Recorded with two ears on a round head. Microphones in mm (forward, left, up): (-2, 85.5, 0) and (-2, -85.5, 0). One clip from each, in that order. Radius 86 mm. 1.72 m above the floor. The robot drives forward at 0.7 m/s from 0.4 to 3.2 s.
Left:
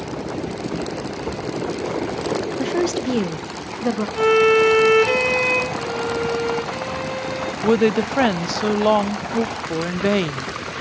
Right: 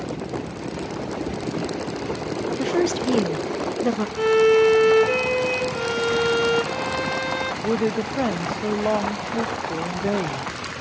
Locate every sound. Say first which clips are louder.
2.6 s a woman speaking: right 3 dB; centre (ahead or behind), 0.9 m
4.2 s a violin: left 2 dB; 35° left (ahead or behind), 4 m
5.7 s a violin: right 1 dB; 40° right (ahead or behind), 0.9 m
7.6 s a woman speaking: left 9 dB; 55° left (ahead or behind), 0.6 m